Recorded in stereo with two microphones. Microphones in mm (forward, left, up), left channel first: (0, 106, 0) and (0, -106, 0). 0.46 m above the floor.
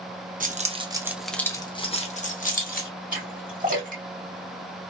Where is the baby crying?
I don't hear a baby crying.